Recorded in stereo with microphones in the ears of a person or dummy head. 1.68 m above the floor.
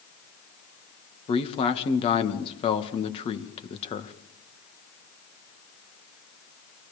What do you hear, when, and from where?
1.3 s a man speaking: 35° left (ahead or behind), 2 m